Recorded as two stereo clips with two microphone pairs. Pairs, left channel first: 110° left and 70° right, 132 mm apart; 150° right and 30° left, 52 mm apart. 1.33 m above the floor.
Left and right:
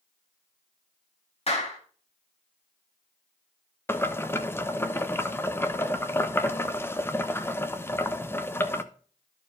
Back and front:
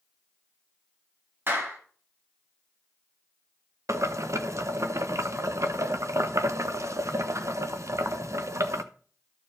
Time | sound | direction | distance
1.5 | a clap | 75° left | 1.7 m
3.9 | boiling | 40° left | 0.6 m